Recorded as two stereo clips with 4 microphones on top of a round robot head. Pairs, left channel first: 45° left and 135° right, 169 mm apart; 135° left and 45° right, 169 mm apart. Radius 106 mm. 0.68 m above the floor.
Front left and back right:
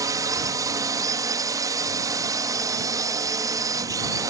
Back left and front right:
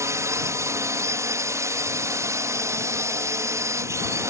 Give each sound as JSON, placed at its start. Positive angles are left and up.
{"t": 0.0, "sound": "a drone", "azimuth_deg": -95}